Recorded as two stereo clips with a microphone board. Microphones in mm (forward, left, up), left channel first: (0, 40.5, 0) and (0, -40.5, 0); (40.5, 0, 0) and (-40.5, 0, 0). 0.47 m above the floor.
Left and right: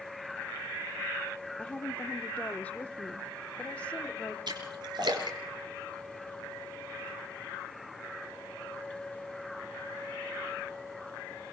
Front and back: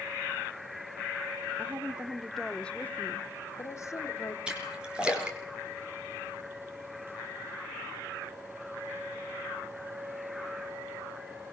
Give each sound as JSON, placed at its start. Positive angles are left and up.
{"t": 1.6, "sound": "a woman speaking", "azimuth_deg": 150, "distance_m": 1.1}
{"t": 4.5, "sound": "a splash", "azimuth_deg": -100, "distance_m": 4.0}